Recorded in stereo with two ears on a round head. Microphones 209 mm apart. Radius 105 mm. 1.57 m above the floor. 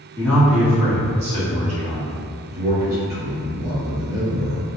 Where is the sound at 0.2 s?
10° left (ahead or behind), 1.0 m; by 2.2 s 40° right (ahead or behind), 2 m.